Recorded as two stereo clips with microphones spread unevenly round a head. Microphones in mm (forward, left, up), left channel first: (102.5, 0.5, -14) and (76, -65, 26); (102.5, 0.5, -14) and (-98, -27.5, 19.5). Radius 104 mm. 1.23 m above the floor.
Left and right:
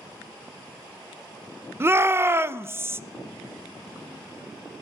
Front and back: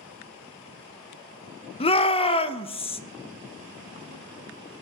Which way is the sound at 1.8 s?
55° right.